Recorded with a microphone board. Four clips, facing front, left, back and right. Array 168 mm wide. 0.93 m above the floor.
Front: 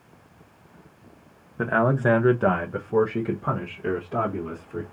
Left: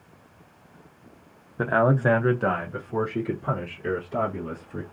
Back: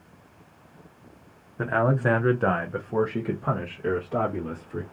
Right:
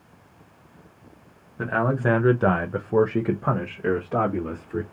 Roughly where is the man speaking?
Ahead left.